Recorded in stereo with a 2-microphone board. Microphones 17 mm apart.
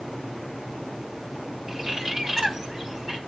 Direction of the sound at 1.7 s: 20° right (ahead or behind).